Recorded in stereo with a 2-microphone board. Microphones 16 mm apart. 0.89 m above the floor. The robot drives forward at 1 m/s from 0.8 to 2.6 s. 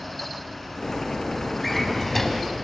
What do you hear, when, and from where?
1.6 s a drawer: 10° left (ahead or behind), 3 m; by 2.5 s 15° left (ahead or behind), 2.5 m